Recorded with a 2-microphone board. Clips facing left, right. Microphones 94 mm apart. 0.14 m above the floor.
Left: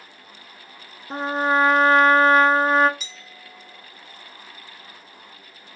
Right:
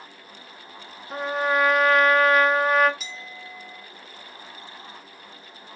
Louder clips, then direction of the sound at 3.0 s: Right 5 dB; centre (ahead or behind).